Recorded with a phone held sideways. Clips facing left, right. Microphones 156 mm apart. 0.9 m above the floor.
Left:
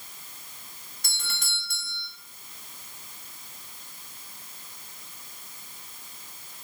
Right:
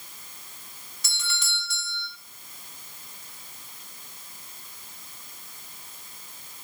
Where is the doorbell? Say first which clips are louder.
Right 4 dB; 55° left (ahead or behind), 2 m.